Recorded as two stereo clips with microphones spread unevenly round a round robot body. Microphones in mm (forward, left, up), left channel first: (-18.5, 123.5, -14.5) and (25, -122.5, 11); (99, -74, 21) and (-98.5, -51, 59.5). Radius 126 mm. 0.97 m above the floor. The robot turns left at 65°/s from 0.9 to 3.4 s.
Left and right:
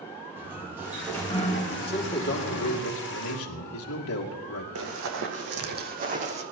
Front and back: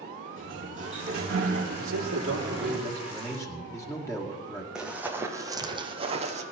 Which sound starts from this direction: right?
Running footsteps, at 4.8 s.